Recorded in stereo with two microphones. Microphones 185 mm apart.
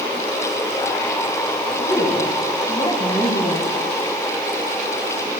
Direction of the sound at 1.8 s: 30° left (ahead or behind).